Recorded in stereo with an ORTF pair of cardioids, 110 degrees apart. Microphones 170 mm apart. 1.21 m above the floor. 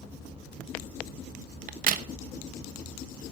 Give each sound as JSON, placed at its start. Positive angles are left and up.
{"t": 1.7, "sound": "a crack", "azimuth_deg": -55, "distance_m": 1.1}